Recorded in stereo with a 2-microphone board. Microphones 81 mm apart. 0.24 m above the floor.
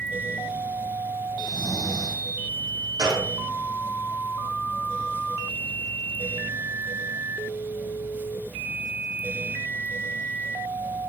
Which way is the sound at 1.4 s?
60° left (ahead or behind).